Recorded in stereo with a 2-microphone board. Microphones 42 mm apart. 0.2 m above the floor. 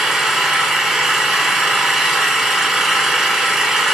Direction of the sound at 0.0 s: 10° right (ahead or behind).